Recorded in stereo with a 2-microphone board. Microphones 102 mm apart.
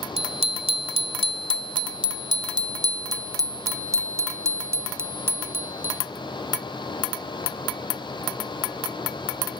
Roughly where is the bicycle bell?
Right.